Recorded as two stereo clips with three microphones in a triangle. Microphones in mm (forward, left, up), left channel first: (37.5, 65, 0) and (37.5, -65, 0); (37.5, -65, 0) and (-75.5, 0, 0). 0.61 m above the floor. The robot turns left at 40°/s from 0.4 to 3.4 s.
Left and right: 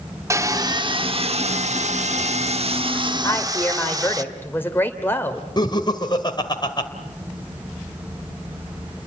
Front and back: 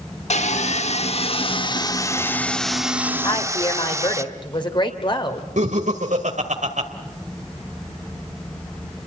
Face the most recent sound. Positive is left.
turn(degrees=145)